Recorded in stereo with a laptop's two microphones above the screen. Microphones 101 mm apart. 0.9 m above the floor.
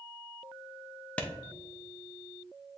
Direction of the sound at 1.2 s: 15° left (ahead or behind).